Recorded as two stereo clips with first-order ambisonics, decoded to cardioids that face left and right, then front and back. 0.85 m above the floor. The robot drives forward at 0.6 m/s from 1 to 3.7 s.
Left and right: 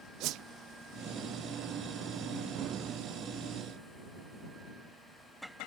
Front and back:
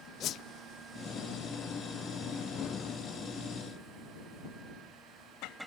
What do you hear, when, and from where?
0.2 s a whoosh: 50° right